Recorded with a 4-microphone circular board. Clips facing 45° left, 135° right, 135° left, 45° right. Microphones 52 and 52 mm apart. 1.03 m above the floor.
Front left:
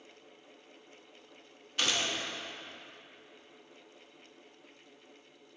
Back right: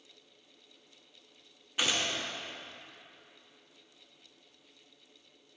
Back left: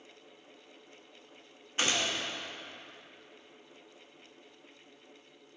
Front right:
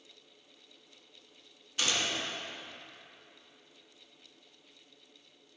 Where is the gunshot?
165° left, 0.9 m.